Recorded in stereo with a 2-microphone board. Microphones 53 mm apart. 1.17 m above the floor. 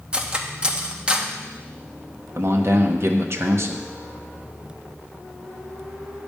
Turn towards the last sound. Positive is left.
turn(degrees=-50)  # may be behind; listen again after turning